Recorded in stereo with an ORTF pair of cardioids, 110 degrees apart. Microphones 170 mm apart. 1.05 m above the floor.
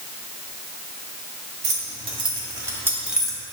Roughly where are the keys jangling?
Ahead right.